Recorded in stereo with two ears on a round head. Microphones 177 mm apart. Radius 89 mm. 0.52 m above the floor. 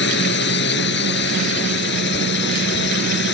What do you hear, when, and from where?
0.0 s a drone: 55° left (ahead or behind)